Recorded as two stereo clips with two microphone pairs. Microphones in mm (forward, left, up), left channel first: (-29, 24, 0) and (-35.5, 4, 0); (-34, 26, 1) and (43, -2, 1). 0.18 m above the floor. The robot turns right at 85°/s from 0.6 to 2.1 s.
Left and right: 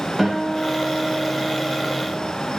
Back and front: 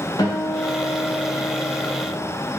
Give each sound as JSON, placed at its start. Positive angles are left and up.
{"t": 0.2, "sound": "a guitar", "azimuth_deg": 170, "distance_m": 4.0}